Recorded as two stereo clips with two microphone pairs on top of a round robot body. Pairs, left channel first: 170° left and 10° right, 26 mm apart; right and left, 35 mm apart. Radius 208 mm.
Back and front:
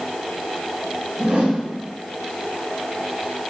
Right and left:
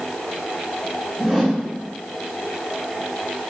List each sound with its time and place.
1.2 s a whoosh: 5° left, 3.5 m